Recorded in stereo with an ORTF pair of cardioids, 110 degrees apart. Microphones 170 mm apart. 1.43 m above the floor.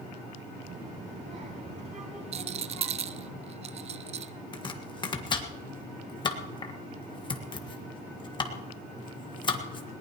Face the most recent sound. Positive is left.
turn(degrees=30)